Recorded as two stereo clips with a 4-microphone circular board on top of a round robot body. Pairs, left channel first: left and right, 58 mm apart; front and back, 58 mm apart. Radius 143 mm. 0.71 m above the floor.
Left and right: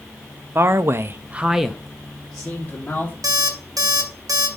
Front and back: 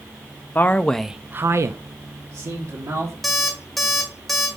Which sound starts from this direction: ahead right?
A man speaking, at 0.6 s.